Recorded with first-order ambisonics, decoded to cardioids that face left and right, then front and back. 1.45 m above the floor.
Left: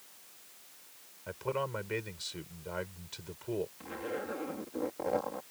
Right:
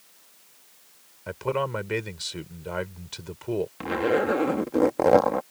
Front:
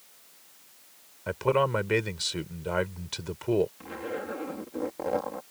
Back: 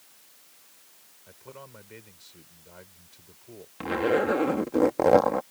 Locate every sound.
1.3 s a man speaking: 25° right
3.8 s a zipper: 130° right